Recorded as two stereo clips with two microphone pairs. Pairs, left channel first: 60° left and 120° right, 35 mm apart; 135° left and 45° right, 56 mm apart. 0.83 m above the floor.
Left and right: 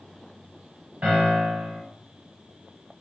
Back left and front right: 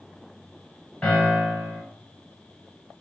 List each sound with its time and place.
1.0 s a piano: 160° right, 1.4 m